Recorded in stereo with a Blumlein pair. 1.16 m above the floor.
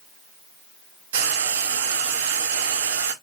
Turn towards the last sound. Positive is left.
turn(degrees=-60)